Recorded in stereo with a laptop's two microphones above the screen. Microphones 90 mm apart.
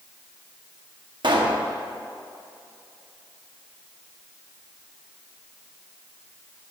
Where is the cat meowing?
I don't hear a cat meowing.